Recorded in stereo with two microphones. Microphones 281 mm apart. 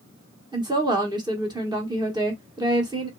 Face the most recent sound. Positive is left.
turn(degrees=-15)  # may be behind; listen again after turning